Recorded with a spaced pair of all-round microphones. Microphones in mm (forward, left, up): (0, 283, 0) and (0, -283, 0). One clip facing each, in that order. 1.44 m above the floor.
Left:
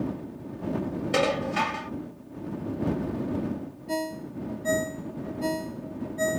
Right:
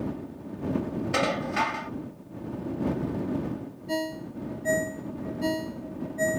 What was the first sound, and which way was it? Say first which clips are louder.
Dishes clattering: left 5 dB; 50° left (ahead or behind).